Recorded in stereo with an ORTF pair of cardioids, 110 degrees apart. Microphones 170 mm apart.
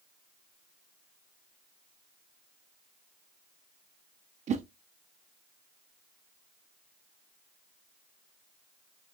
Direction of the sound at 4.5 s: 40° right.